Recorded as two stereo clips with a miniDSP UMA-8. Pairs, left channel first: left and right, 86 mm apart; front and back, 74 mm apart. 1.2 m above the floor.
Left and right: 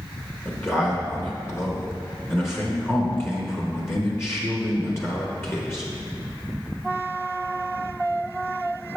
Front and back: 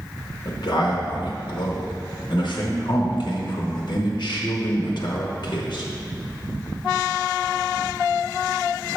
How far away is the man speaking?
About 1.1 m.